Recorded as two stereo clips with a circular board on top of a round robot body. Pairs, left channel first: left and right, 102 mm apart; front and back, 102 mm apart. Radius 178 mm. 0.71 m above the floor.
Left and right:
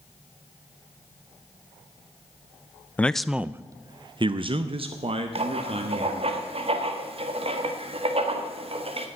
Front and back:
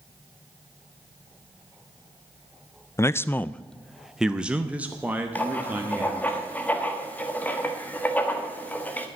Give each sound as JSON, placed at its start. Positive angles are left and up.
{"t": 3.0, "sound": "a man speaking", "azimuth_deg": 30, "distance_m": 0.6}
{"t": 5.3, "sound": "writing", "azimuth_deg": -75, "distance_m": 1.6}